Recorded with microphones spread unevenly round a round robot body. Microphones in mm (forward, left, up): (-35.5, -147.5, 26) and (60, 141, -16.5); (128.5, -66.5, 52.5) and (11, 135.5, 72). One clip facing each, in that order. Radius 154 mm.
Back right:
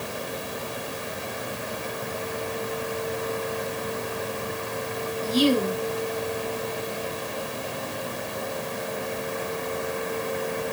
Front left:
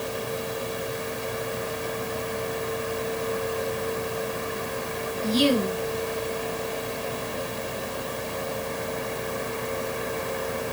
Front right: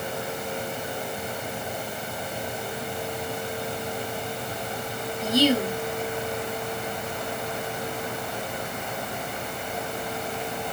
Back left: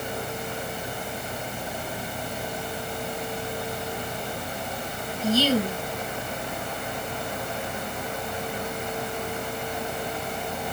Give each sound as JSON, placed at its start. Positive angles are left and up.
{"t": 5.2, "sound": "a woman speaking", "azimuth_deg": 15, "distance_m": 5.5}